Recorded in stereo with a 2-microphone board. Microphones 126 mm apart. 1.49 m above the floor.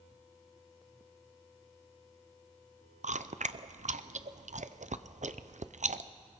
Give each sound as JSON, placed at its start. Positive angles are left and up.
{"t": 3.0, "sound": "chewing", "side_deg": -85, "distance_m": 0.6}